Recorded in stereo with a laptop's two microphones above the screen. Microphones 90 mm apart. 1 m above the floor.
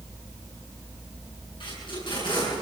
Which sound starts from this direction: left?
Tape being pulled, at 1.6 s.